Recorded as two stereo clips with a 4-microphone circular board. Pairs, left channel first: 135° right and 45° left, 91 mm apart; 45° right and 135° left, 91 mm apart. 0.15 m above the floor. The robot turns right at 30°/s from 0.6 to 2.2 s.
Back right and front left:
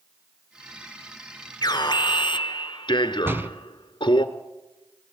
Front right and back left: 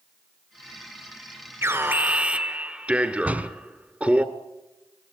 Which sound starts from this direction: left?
A door slam, at 3.2 s.